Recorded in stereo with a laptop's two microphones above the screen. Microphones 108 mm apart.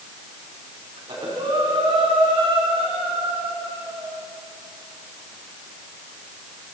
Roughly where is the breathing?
Right.